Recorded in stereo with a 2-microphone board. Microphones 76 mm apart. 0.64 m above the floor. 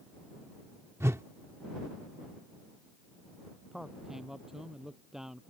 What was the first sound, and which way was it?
A whoosh, 40° right (ahead or behind).